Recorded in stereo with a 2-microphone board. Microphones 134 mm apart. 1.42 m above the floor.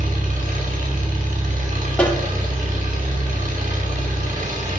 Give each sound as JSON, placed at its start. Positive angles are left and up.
{"t": 0.0, "sound": "an engine running", "side_deg": -75, "distance_m": 4.5}
{"t": 2.0, "sound": "a snare drum", "side_deg": 10, "distance_m": 3.0}